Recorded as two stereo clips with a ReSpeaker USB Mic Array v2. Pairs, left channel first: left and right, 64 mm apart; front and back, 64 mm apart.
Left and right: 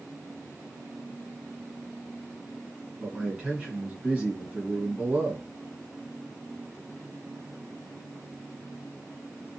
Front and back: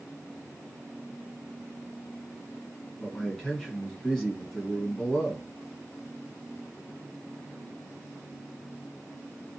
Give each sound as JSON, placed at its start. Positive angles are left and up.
{"t": 3.0, "sound": "a man speaking", "azimuth_deg": -65, "distance_m": 1.3}